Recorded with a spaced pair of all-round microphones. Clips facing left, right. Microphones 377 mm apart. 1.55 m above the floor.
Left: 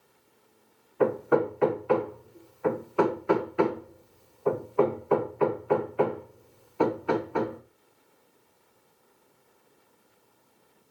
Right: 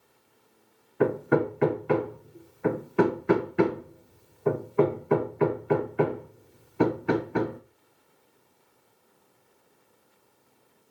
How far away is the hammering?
About 1.1 m.